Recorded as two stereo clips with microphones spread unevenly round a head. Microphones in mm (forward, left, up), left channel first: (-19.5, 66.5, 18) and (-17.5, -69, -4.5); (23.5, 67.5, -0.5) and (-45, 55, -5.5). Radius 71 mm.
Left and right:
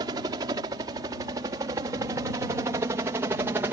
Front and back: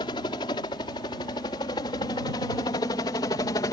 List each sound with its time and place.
0.0 s a helicopter: 25° right; by 3.7 s 20° right